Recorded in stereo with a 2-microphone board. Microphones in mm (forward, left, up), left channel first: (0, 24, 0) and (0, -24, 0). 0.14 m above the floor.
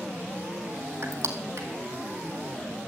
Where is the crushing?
65° right (ahead or behind), 1.9 m.